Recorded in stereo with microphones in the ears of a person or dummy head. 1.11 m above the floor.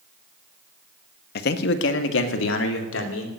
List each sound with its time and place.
1.4 s a man speaking: 60° left (ahead or behind), 1.1 m; by 3.3 s 85° left, 3 m